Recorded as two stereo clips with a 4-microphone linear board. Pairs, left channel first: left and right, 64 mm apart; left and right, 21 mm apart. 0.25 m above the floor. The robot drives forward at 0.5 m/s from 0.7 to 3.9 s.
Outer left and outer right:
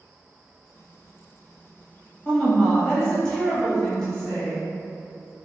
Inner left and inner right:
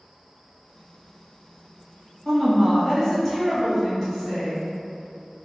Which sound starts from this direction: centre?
A woman speaking, at 2.2 s.